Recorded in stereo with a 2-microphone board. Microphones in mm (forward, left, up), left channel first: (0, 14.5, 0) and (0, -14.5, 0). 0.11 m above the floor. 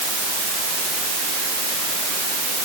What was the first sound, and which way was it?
Only background noise.